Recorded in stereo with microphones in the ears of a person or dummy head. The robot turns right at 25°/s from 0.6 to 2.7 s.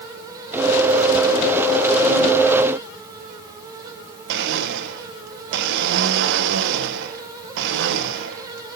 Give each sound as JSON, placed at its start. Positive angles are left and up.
{"t": 4.3, "sound": "a blender", "side_deg": -65, "distance_m": 1.0}